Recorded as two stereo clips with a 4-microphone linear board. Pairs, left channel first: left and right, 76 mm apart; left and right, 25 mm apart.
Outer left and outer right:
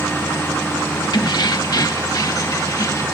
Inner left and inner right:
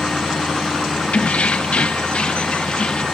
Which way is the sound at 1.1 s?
65° left (ahead or behind).